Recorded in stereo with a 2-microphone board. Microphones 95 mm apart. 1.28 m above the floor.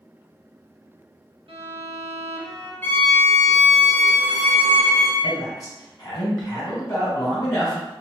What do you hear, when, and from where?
1.5 s a violin: 65° right (ahead or behind), 0.8 m
2.8 s a violin: 20° left (ahead or behind), 0.6 m
5.2 s a man speaking: 35° left (ahead or behind), 1.2 m